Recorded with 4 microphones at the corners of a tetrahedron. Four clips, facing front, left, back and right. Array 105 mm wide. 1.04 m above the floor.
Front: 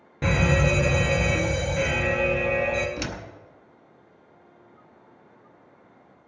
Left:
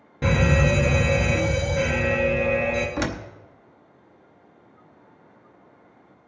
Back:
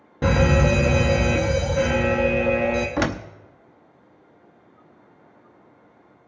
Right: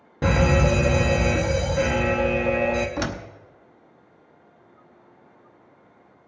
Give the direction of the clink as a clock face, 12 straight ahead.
No clink in this recording.